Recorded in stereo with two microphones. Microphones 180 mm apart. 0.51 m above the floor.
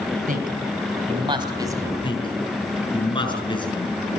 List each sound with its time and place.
0.3 s a man speaking: 55° right (ahead or behind), 2.5 m; by 1.9 s 15° right (ahead or behind), 3 m
2.0 s a man speaking: 25° left (ahead or behind), 6 m